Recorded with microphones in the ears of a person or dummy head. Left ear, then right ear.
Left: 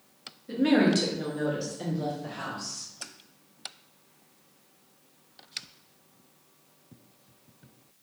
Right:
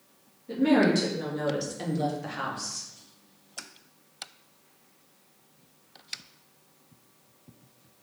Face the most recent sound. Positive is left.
turn(degrees=-60)  # may be behind; listen again after turning